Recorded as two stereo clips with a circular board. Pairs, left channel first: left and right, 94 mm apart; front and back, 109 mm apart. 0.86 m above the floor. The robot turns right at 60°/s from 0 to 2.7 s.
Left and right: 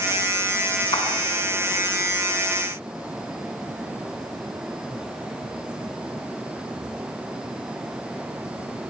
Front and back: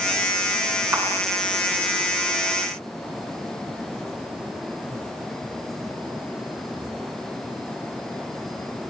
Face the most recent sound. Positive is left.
turn(degrees=-140)